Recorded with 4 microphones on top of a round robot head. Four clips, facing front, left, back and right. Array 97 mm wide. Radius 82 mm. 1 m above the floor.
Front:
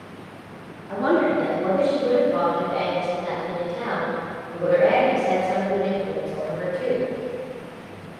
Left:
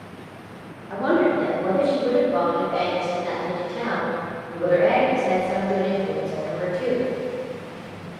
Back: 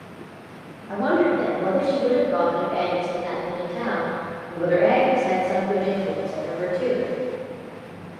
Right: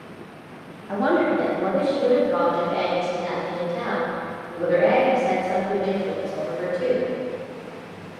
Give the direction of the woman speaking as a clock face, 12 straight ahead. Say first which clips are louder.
Even, even; 3 o'clock.